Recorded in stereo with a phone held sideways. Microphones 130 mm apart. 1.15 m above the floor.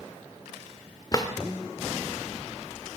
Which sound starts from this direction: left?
A drawer, at 1.1 s.